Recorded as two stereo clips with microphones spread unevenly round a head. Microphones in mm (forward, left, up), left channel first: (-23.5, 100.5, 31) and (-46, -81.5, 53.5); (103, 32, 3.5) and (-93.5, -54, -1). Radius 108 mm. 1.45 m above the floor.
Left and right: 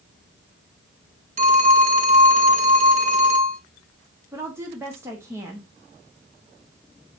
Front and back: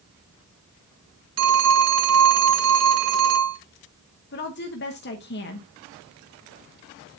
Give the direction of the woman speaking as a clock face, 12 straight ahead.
1 o'clock.